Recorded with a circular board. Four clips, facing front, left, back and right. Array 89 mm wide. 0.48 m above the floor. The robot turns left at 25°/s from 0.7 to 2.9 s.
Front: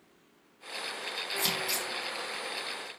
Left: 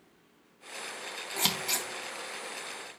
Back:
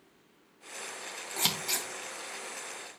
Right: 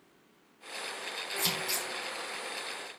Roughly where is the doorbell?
I don't hear a doorbell.